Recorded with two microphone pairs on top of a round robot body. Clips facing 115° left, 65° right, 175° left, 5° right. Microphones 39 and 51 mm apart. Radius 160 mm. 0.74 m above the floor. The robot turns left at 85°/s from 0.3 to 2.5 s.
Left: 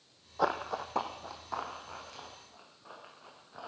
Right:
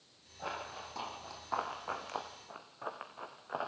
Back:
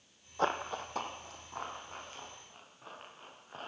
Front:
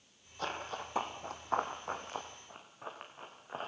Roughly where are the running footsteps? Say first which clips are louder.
Left 10 dB, back 6 dB; behind left.